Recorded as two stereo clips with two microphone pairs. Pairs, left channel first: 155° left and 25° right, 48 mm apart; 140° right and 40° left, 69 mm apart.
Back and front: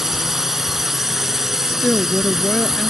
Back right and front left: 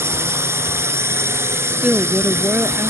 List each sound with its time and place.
0.0 s a drone: 55° left
1.7 s a woman speaking: 100° left